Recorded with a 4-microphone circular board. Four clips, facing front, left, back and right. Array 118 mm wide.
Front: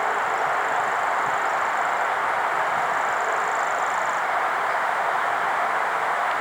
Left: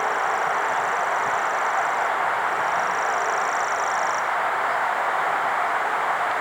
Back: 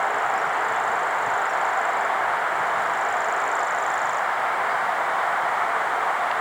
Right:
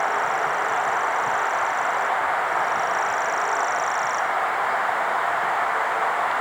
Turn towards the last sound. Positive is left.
No sound to turn to.